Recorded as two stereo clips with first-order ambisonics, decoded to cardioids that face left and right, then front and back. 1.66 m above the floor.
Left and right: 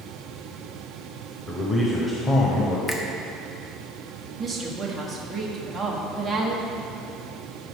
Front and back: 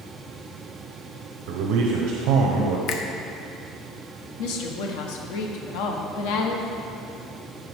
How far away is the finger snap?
About 0.8 m.